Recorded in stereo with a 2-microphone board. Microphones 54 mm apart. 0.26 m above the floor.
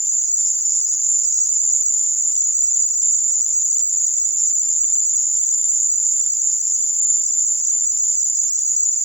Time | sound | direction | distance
0.0 | an insect | 60° left (ahead or behind) | 1.2 m